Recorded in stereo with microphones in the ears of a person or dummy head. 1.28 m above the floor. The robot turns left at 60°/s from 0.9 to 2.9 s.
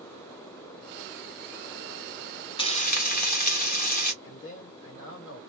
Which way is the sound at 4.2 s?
80° left.